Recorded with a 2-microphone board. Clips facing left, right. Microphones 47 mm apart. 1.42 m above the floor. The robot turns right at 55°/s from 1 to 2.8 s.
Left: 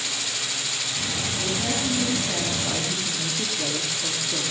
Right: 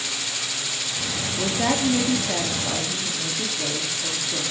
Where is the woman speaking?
75° right, 3 m; by 4.4 s 5° left, 3 m.